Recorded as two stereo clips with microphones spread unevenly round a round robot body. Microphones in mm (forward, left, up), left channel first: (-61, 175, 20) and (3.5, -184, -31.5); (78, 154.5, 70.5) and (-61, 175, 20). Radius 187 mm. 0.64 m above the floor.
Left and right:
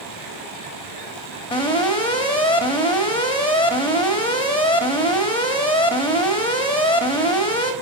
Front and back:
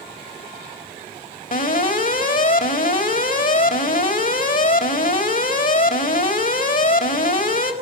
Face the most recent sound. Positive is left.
turn(degrees=20)